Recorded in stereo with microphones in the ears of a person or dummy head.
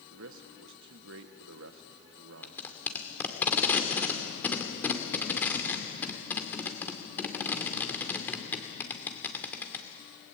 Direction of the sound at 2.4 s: 5° left (ahead or behind).